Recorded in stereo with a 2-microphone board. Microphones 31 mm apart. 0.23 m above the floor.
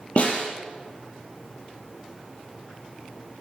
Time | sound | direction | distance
0.2 | a snare drum | 45° left (ahead or behind) | 3.5 m